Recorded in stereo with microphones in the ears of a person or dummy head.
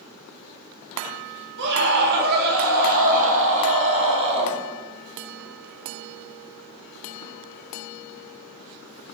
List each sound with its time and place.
1.6 s a scream: 60° right (ahead or behind), 3 m; by 4.6 s 30° right (ahead or behind), 3.5 m